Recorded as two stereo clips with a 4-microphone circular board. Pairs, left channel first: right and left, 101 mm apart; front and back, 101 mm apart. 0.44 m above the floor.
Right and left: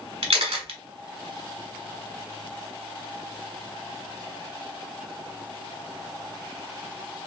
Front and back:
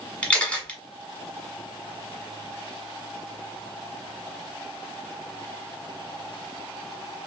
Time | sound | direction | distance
0.2 | a camera shutter | 75° left | 0.9 m